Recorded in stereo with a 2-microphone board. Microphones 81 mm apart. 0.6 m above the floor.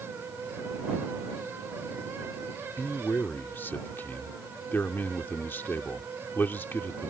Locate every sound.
2.8 s a man speaking: 25° left (ahead or behind)